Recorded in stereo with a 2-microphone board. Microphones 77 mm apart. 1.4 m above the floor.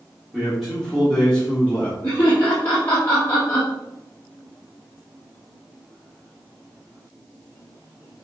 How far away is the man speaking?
About 3 m.